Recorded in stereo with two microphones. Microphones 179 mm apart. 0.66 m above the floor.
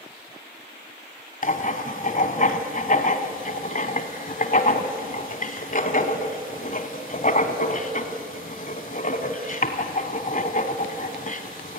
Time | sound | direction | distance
1.4 | writing | 50° left (ahead or behind) | 1.3 m